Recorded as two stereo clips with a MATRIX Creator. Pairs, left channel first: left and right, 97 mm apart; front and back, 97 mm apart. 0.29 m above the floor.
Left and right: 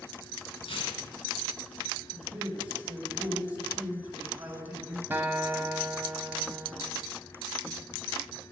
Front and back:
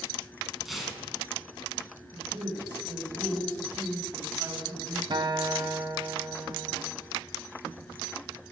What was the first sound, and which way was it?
Tearing paper, 90° left.